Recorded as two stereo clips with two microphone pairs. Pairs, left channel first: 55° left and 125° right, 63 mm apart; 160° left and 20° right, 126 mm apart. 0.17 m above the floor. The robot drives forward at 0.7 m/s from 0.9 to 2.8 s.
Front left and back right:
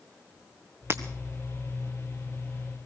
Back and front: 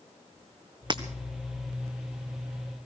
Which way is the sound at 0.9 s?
70° right.